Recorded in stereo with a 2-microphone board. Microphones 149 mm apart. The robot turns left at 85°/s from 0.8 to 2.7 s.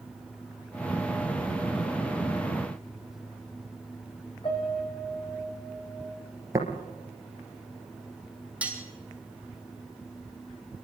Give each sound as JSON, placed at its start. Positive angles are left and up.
{"t": 4.4, "sound": "a piano", "side_deg": 40, "distance_m": 5.5}
{"t": 6.5, "sound": "tapping", "side_deg": -20, "distance_m": 3.0}
{"t": 8.6, "sound": "cutlery clinking", "side_deg": -10, "distance_m": 3.0}